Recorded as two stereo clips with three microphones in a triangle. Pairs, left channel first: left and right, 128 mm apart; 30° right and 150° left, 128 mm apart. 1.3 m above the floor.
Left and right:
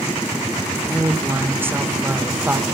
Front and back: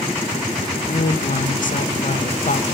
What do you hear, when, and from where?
0.9 s a woman speaking: 15° right, 1.0 m